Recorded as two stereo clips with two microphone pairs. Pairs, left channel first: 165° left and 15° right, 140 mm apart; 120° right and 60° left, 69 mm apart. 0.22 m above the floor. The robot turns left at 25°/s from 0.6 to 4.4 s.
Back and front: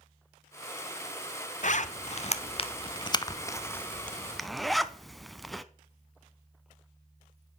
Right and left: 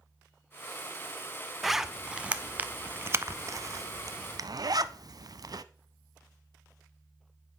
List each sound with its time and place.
1.6 s a zipper: 145° left, 0.7 m; by 5.6 s 75° left, 0.7 m